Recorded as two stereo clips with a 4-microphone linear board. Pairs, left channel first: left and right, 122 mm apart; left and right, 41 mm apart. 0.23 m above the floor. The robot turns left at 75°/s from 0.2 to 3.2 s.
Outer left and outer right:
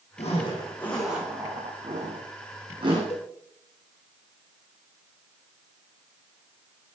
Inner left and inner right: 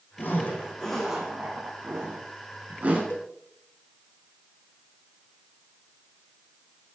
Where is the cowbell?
60° left (ahead or behind), 2.5 m; by 3.3 s 65° left (ahead or behind), 2.5 m.